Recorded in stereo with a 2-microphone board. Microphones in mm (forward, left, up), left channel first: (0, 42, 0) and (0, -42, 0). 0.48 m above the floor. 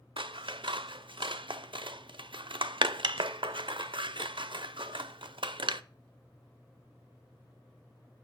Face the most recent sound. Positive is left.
turn(degrees=-75)  # may be behind; listen again after turning